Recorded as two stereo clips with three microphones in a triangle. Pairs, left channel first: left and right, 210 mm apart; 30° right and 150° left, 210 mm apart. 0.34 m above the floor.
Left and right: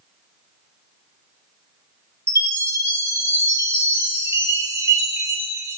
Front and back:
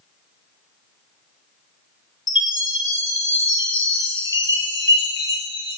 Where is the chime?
15° right, 2.5 m.